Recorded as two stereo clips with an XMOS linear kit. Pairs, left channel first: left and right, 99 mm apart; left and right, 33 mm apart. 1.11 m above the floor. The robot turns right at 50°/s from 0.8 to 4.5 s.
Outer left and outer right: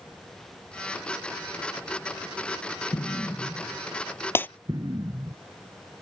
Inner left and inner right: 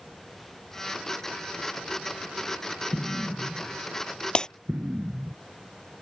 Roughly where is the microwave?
I don't hear a microwave.